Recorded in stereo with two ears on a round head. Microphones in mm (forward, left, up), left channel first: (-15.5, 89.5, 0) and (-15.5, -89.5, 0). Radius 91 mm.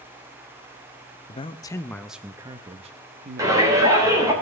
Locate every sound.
1.3 s a man speaking: 30° left (ahead or behind), 0.7 m; by 4.4 s 55° right (ahead or behind), 1.4 m
3.4 s a shout: 15° right (ahead or behind), 3.5 m